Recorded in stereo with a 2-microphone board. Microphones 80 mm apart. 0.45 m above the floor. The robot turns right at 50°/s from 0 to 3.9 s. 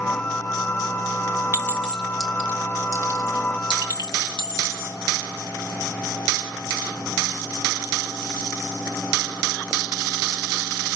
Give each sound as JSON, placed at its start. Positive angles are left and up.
{"t": 1.5, "sound": "a clink", "side_deg": 30, "distance_m": 1.8}